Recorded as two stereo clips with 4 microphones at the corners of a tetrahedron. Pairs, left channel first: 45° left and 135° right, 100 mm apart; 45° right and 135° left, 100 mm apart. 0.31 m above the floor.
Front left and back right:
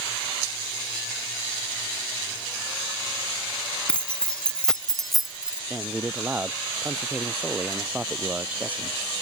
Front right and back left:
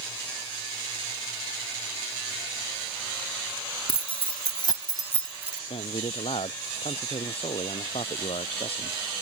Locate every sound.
3.9 s keys jangling: 35° right; by 5.6 s 150° left
5.7 s a man speaking: 60° right